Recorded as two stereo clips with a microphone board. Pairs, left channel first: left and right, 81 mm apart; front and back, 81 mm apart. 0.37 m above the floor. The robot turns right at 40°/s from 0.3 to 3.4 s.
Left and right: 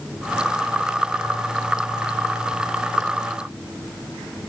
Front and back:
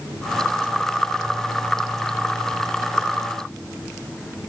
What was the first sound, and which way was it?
Only background noise.